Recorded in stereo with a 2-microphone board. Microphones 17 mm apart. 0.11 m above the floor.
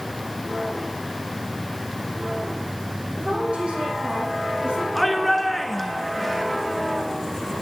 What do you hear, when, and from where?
3.2 s a woman speaking: 70° right (ahead or behind), 6 m
5.0 s a shout: 5° left (ahead or behind), 1.4 m